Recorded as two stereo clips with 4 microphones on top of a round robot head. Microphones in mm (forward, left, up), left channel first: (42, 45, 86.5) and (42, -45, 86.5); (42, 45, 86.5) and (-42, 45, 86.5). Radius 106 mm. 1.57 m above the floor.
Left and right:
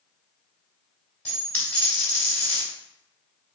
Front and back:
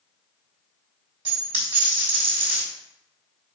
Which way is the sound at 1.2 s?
160° left.